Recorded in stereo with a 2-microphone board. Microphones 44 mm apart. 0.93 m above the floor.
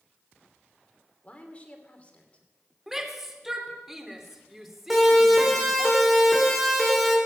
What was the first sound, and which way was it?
A woman speaking, 30° left (ahead or behind).